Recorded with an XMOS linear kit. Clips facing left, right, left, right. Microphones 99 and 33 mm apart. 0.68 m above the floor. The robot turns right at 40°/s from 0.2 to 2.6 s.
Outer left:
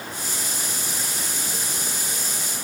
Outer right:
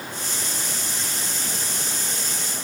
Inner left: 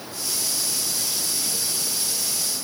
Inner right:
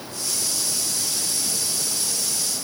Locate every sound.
Only background noise.